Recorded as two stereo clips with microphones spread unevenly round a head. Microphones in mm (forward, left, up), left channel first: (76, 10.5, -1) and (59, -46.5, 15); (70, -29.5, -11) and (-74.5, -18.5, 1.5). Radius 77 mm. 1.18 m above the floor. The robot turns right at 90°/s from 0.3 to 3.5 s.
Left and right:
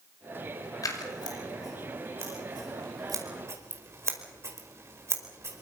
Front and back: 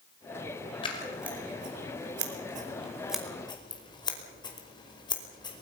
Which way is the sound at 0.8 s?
55° left.